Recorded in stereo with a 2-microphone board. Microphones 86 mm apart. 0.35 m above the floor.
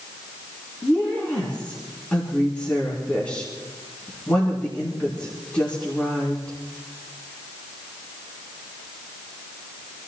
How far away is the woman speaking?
About 4 m.